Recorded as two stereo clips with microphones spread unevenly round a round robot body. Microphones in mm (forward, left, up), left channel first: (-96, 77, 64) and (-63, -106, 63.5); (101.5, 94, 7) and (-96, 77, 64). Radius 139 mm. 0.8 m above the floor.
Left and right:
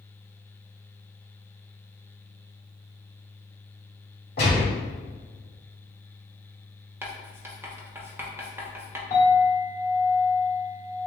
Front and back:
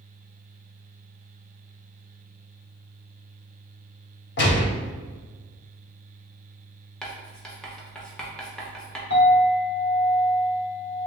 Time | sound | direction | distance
4.4 | a gunshot | 35° left | 1.4 m
7.0 | writing | 20° right | 0.9 m
9.1 | a clink | 25° left | 1.3 m